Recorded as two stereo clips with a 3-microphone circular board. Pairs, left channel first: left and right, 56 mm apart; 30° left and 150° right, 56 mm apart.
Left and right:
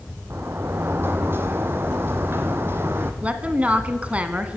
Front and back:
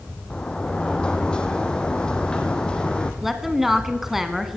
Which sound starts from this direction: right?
A woman speaking, at 3.2 s.